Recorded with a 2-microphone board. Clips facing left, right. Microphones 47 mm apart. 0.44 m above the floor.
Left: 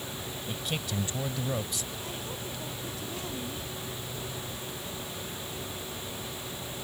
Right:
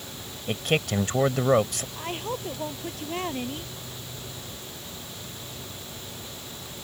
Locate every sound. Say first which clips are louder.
0.5 s a man speaking: right 11 dB; 60° right (ahead or behind)
1.9 s a woman speaking: right 6 dB; 50° right (ahead or behind)